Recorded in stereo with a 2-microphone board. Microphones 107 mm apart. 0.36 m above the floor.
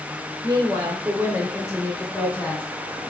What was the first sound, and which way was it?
A woman speaking, 40° right (ahead or behind).